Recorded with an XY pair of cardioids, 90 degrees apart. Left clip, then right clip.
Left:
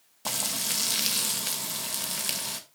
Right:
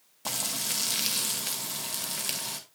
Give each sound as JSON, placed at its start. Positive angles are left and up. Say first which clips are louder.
{"t": 0.2, "sound": "frying", "louder": "left 2 dB", "azimuth_deg": 15, "distance_m": 2.0}